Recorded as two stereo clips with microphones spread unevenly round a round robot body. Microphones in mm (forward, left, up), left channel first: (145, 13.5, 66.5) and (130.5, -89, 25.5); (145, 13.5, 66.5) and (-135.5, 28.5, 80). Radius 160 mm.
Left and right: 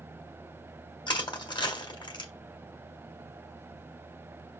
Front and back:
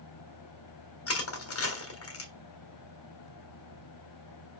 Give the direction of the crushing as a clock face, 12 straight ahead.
11 o'clock.